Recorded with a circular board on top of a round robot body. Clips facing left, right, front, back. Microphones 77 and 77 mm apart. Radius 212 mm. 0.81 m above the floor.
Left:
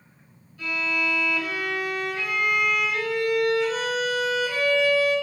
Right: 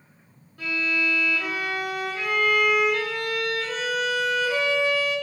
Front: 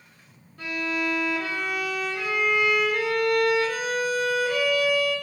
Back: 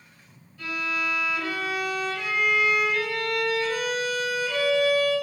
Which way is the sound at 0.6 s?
45° right.